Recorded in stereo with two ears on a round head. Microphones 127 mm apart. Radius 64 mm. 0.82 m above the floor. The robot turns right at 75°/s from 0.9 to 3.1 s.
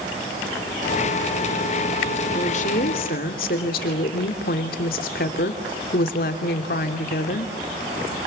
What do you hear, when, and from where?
2.4 s a woman speaking: 40° left, 2.5 m; by 7.5 s 95° left, 2.5 m